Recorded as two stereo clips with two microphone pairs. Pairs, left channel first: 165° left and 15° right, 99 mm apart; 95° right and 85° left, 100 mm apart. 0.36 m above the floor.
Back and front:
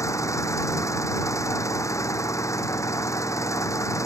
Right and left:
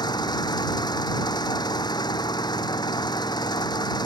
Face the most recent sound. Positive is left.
turn(degrees=-140)